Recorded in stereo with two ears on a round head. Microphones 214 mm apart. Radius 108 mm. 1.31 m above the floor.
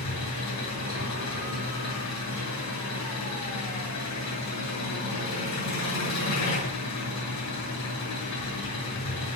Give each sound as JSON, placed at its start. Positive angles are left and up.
{"t": 0.0, "sound": "an engine running", "side_deg": 75, "distance_m": 9.5}